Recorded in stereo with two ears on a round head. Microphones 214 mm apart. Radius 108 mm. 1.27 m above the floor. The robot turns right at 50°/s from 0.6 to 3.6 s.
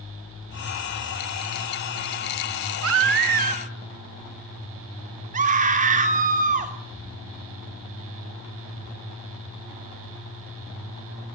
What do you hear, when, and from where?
2.8 s a baby crying: 65° right, 1.6 m; by 3.7 s 25° right, 1.6 m
5.3 s a scream: 30° right (ahead or behind), 3 m